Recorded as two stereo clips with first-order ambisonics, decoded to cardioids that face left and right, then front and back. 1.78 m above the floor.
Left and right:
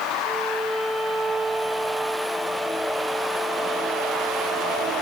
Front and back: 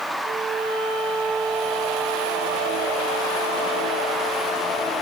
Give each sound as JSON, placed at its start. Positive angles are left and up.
{"t": 0.2, "sound": "a violin", "azimuth_deg": 180, "distance_m": 6.0}